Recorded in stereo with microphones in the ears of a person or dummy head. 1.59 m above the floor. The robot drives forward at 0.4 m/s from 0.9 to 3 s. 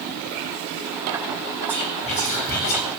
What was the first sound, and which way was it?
Whispering, 30° left (ahead or behind).